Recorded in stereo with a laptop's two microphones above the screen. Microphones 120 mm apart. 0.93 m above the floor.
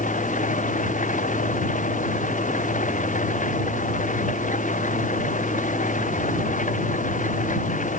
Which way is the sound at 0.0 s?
85° left.